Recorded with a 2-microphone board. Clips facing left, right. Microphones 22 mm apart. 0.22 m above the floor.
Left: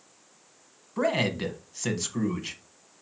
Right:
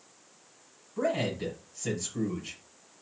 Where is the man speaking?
45° left (ahead or behind), 1.3 m.